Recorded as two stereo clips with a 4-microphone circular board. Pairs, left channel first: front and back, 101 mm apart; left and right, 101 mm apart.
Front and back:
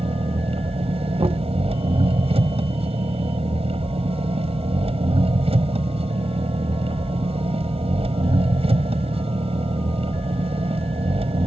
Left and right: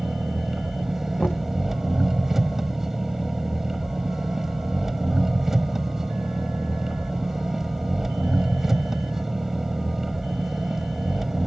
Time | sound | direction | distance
0.0 | an engine running | 175° right | ?
1.2 | knocking | 165° left | ?